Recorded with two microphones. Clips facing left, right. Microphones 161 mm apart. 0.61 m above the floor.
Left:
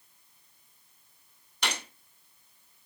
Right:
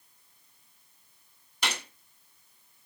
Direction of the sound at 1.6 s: 5° right (ahead or behind).